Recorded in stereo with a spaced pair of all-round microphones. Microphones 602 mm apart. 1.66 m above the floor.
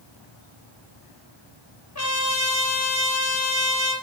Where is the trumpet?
25° left (ahead or behind), 8 m.